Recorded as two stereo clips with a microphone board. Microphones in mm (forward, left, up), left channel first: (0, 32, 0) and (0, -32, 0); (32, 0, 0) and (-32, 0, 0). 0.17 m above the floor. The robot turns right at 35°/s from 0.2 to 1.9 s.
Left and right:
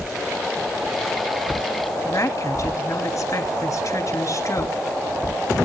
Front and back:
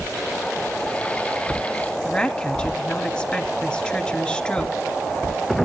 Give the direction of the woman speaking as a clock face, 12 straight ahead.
10 o'clock.